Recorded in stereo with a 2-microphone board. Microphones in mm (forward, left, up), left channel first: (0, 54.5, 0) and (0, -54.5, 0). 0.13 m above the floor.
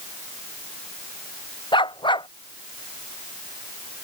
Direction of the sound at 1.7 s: 45° left (ahead or behind).